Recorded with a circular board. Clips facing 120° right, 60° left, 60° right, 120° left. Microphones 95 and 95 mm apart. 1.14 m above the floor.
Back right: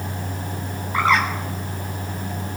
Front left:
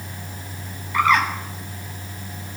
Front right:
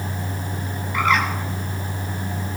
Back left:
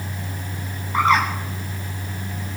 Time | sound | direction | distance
0.9 | a bird | straight behind | 3 m